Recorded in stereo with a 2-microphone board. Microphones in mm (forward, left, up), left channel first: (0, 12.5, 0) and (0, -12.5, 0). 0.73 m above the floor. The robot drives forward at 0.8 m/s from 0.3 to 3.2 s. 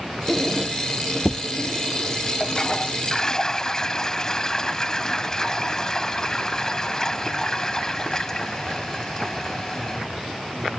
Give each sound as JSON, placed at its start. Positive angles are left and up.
{"t": 0.3, "sound": "a squeak", "side_deg": -5}
{"t": 2.4, "sound": "a toilet flushing", "side_deg": 25}